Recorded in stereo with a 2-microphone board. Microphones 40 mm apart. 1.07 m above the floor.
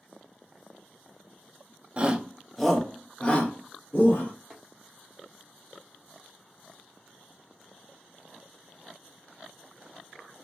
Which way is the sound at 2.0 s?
30° right (ahead or behind).